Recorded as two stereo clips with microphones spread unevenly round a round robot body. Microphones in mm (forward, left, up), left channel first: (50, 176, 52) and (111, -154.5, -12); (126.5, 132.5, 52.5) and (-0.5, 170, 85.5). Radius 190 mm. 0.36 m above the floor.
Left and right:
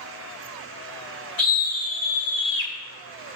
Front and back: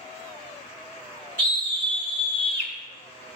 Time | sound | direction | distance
1.4 | a scream | 150° left | 3 m